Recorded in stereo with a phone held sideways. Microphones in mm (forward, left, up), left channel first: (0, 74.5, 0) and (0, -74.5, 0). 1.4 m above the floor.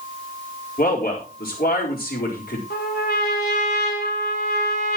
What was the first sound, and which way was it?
A man speaking, 75° left (ahead or behind).